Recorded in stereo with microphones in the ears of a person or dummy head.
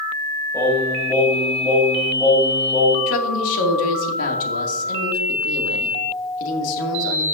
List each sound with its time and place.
0.5 s singing: 15° left (ahead or behind), 5.5 m
3.1 s a woman speaking: 75° left (ahead or behind), 2 m